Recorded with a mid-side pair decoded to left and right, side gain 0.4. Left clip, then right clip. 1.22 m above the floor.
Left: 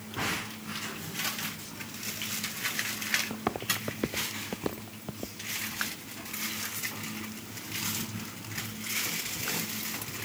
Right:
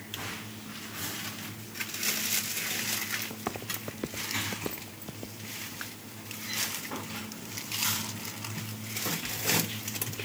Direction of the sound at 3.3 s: 30° left.